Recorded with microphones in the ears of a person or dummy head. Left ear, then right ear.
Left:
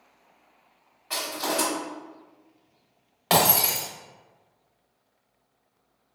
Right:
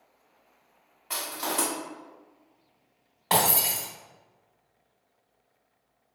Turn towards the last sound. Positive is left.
turn(degrees=25)  # may be behind; listen again after turning